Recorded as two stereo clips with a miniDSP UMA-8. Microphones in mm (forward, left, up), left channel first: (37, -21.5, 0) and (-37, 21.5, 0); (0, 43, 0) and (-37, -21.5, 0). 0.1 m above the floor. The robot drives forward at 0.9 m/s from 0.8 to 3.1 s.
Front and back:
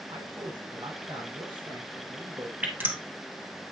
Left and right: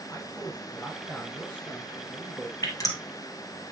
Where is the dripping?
80° left, 2 m; by 3.0 s 90° left, 2 m.